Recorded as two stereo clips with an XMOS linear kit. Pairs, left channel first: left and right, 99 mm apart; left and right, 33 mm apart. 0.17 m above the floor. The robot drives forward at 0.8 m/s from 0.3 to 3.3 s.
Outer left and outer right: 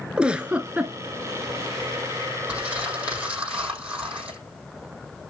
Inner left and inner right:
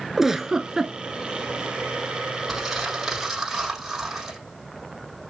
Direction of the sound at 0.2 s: 10° right (ahead or behind).